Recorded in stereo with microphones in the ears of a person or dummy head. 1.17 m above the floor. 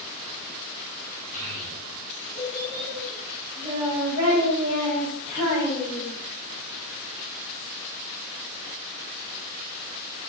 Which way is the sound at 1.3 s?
70° right (ahead or behind).